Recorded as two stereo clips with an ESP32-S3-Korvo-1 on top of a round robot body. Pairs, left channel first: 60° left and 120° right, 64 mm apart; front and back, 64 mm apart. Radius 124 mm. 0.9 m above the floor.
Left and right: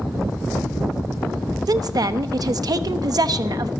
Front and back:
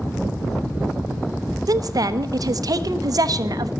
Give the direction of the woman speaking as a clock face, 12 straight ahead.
5 o'clock.